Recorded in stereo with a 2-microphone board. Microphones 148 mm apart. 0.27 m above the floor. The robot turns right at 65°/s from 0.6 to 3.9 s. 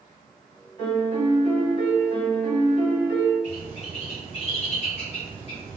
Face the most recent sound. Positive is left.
turn(degrees=45)  # may be behind; listen again after turning